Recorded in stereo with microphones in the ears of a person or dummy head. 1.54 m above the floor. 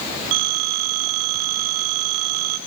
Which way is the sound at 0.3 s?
25° right (ahead or behind).